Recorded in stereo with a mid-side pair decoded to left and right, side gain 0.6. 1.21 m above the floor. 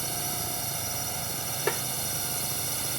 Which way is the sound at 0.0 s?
20° right.